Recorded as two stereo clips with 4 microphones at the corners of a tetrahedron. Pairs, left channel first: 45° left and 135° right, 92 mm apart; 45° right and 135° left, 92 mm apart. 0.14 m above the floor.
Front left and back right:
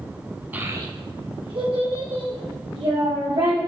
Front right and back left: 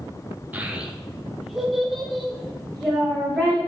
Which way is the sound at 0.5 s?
Straight behind.